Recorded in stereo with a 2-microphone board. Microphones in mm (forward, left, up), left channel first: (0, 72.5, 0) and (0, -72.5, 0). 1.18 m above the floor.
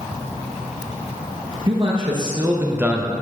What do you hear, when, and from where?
1.7 s a man speaking: 40° right (ahead or behind), 1.1 m; by 3.1 s centre (ahead or behind), 0.5 m